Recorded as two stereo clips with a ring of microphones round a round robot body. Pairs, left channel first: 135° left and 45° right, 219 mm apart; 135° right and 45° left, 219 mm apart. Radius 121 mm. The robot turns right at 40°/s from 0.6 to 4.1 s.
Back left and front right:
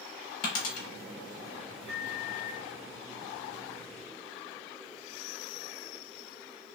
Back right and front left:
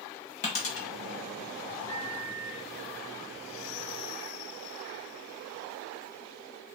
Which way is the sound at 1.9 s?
70° right.